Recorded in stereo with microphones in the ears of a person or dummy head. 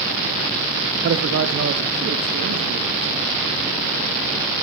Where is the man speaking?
65° right (ahead or behind), 0.8 m.